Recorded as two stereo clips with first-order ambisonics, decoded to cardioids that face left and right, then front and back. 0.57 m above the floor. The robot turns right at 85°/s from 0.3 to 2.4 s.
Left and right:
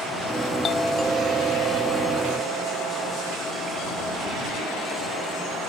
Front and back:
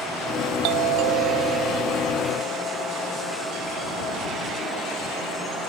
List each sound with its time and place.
0.6 s a doorbell: 155° left; by 3.4 s 55° right